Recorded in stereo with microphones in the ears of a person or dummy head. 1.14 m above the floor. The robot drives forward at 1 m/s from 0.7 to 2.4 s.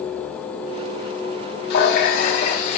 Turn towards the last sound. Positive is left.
turn(degrees=50)  # may be behind; listen again after turning